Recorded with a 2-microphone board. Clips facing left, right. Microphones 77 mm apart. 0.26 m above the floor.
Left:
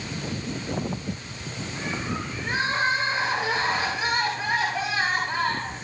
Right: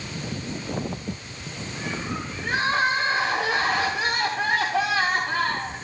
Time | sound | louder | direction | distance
2.4 | crying | right 2 dB | 60° right (ahead or behind) | 8 m